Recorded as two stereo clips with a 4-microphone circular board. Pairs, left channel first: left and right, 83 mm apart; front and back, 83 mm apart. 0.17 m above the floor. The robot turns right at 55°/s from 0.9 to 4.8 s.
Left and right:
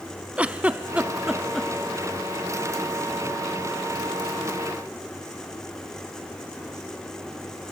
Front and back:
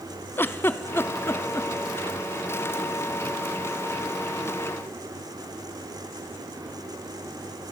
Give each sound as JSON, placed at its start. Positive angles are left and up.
{"t": 0.4, "sound": "a giggle", "azimuth_deg": -30, "distance_m": 0.5}